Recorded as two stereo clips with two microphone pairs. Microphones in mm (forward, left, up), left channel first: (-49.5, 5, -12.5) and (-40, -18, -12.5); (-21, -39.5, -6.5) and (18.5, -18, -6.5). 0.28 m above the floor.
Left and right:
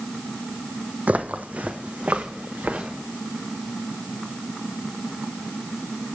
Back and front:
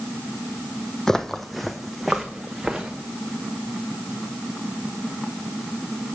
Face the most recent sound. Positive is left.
turn(degrees=-45)